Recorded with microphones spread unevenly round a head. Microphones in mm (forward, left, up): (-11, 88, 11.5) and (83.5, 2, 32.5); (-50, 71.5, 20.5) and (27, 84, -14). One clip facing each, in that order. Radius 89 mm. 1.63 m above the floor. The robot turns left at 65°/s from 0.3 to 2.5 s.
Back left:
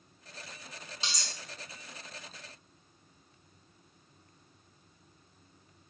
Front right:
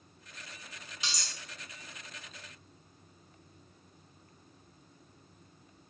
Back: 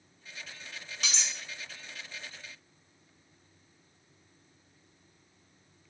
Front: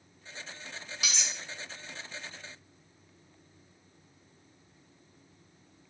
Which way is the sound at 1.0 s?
175° left.